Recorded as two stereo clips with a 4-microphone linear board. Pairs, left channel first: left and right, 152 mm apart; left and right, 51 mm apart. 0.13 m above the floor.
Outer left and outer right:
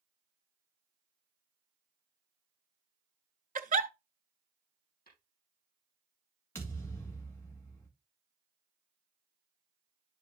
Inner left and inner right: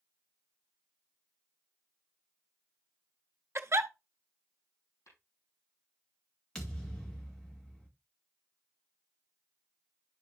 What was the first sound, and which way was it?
A giggle, 55° right (ahead or behind).